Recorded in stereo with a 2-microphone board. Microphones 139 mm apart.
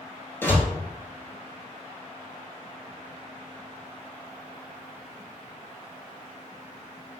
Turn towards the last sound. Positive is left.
turn(degrees=15)  # may be behind; listen again after turning